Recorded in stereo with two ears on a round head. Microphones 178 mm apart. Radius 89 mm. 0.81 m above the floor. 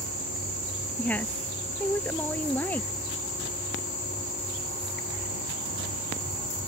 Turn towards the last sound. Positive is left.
turn(degrees=10)  # may be behind; listen again after turning